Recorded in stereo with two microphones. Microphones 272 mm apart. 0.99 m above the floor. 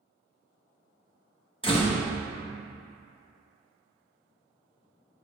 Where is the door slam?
20° left (ahead or behind), 0.9 m.